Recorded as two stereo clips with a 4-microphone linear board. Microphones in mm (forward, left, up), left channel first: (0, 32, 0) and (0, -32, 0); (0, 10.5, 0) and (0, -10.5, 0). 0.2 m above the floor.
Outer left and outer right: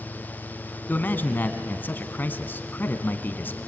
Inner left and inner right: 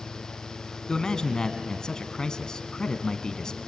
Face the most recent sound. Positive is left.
turn(degrees=30)  # may be behind; listen again after turning